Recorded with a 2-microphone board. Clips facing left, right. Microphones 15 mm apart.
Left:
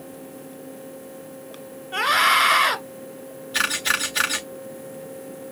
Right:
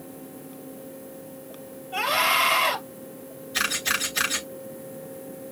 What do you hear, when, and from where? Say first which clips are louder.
1.9 s a scream: left 4 dB; 45° left (ahead or behind), 1.8 m
3.5 s a camera shutter: left 3 dB; 70° left (ahead or behind), 3.5 m